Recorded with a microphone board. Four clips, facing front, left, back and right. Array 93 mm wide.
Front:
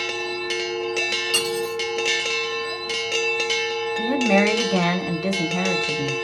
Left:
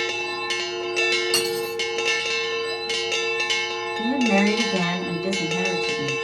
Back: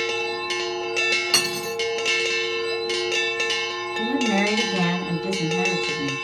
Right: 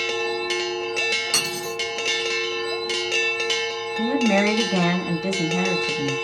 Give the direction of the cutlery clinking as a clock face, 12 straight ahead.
6 o'clock.